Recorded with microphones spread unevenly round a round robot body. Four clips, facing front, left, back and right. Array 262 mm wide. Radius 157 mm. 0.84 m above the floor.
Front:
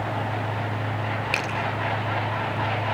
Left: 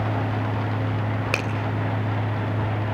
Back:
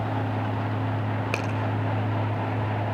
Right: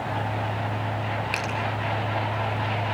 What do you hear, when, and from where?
1.3 s a finger snap: 135° left, 3.5 m